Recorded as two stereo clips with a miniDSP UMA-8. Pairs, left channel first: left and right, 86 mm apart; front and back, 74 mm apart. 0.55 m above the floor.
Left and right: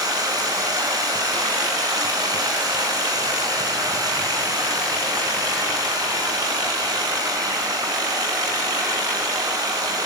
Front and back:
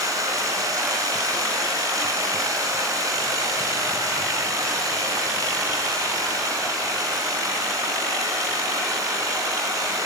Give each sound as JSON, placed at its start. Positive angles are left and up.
{"t": 0.0, "sound": "running water", "azimuth_deg": -135, "distance_m": 3.5}